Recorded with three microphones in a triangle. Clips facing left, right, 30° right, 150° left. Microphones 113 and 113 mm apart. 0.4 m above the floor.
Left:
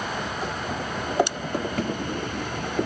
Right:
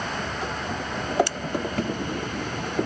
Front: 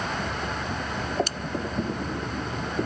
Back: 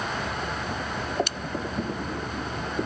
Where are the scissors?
20° left.